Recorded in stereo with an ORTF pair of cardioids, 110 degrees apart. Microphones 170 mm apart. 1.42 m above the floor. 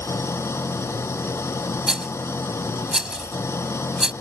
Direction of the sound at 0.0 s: 15° left.